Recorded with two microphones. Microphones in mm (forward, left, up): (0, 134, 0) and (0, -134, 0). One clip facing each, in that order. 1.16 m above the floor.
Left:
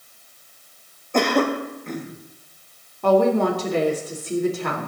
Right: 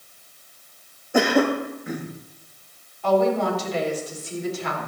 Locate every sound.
1.1 s a cough: 5° right (ahead or behind), 1.8 m
3.0 s a woman speaking: 60° left (ahead or behind), 4 m